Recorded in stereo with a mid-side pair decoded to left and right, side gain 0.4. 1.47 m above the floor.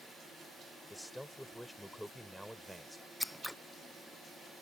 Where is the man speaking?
10° left; by 3.1 s straight ahead.